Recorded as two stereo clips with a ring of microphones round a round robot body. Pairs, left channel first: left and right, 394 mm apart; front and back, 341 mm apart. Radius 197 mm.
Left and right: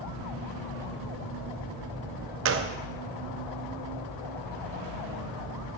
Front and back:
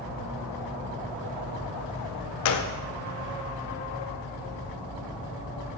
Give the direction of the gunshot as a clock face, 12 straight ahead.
1 o'clock.